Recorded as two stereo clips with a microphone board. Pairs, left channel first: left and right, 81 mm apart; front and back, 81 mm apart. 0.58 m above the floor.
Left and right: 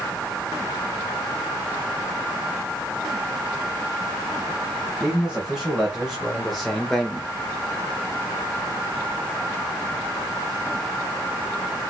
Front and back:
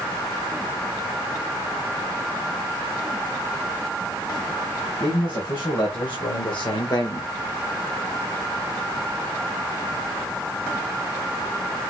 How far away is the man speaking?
About 3.5 m.